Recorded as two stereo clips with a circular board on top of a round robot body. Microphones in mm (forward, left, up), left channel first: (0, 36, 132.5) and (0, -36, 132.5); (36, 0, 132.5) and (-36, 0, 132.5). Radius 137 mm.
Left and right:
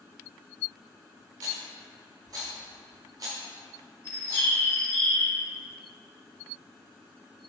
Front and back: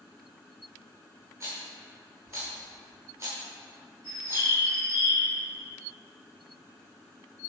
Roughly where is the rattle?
Behind right.